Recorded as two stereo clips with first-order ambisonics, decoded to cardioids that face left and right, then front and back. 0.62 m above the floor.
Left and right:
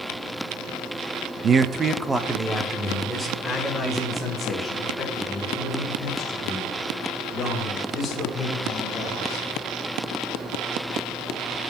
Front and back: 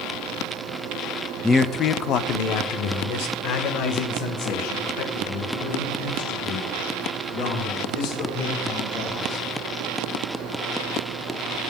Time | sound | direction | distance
1.4 | a man speaking | 75° right | 0.6 m